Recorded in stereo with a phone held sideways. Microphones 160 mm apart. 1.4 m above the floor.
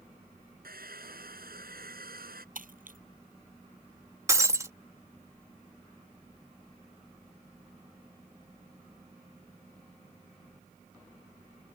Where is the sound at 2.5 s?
65° right (ahead or behind).